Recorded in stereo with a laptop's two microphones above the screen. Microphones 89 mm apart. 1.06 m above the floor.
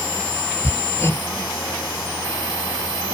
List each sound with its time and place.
0.6 s hammering: 30° left (ahead or behind)